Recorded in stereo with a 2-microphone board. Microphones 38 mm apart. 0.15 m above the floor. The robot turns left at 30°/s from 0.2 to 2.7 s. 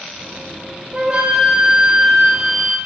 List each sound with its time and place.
0.9 s a flute: 140° right, 1.4 m; by 2.8 s 165° left, 1.4 m